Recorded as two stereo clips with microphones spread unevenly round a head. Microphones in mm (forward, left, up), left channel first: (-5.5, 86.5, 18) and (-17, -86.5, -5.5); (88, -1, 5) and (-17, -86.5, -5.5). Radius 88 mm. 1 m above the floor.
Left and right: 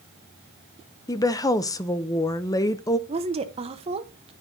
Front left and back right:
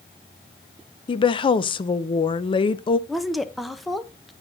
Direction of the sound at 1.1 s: 15° left.